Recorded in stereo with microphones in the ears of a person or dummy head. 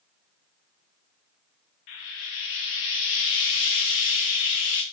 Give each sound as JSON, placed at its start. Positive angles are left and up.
{"t": 1.9, "sound": "frying", "side_deg": 35, "distance_m": 0.6}